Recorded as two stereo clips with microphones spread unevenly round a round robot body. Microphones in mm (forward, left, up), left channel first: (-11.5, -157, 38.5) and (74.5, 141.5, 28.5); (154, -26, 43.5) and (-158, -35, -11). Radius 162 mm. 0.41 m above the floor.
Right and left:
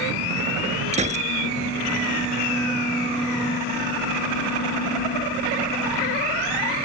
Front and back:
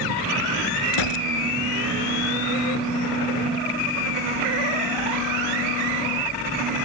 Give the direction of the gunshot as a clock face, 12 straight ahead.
12 o'clock.